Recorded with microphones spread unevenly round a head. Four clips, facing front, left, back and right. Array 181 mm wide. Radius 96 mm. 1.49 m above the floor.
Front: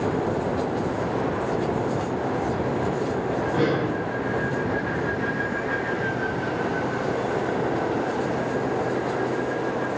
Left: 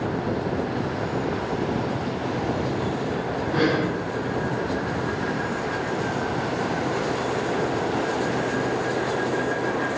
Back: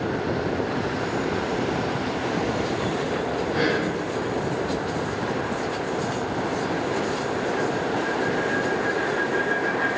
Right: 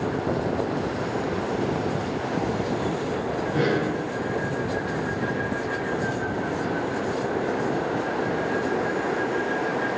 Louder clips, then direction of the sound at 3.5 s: Left 2 dB, front 1 dB; 70° left.